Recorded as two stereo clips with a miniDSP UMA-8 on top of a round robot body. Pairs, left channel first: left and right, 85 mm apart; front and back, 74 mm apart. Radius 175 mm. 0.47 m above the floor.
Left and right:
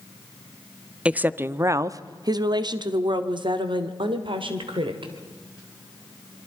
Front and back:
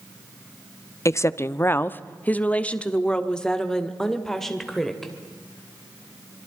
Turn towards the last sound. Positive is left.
turn(degrees=-85)